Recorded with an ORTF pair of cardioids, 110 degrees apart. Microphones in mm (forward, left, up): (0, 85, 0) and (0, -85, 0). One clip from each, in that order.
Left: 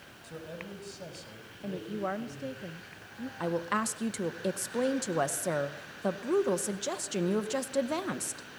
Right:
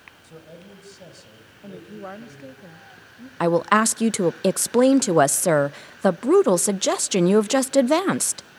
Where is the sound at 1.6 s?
15° left, 1.1 m.